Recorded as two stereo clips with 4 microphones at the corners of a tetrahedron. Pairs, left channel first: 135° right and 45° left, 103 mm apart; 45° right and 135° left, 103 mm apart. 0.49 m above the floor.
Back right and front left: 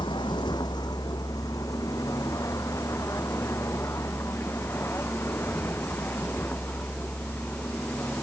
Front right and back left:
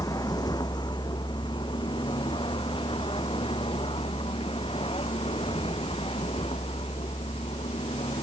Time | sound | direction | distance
0.0 | a vehicle | 95° right | ?